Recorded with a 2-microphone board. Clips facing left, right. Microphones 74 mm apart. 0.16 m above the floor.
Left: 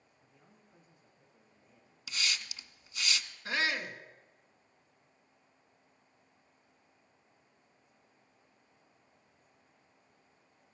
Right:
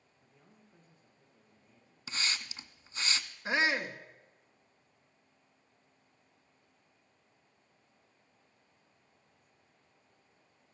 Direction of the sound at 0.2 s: Centre (ahead or behind).